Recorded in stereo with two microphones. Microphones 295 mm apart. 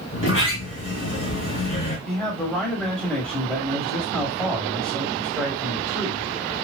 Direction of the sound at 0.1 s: 45° left (ahead or behind).